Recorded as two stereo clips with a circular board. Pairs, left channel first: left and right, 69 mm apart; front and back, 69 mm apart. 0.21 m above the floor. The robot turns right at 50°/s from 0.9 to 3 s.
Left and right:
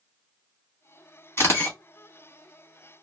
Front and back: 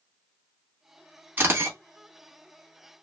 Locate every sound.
1.4 s a camera shutter: 125° left, 1.1 m; by 1.8 s 145° left, 1.1 m